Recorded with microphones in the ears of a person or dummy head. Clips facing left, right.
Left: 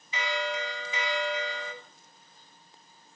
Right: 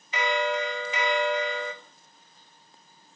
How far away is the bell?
About 1.2 m.